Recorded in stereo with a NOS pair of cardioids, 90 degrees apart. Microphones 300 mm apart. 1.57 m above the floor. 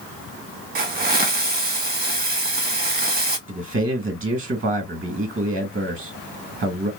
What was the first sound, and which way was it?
A hiss, 30° right.